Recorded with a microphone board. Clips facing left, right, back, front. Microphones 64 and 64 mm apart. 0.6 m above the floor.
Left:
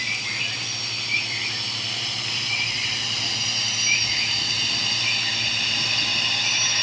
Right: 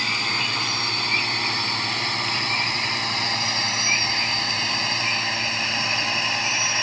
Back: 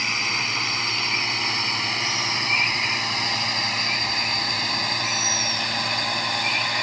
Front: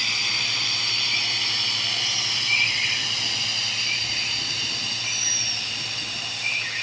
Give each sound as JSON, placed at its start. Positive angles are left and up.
{"t": 0.0, "sound": "a drone", "azimuth_deg": -120}